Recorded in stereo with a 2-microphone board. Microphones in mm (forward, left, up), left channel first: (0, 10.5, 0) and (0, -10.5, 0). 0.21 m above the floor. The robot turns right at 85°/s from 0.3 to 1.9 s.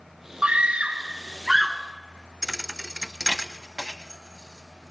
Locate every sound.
0.4 s a scream: 110° right, 2 m; by 1.8 s 5° left, 2 m
2.4 s a thud: 25° right (ahead or behind), 0.7 m